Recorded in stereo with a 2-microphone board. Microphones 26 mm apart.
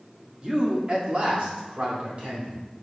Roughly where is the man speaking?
Right.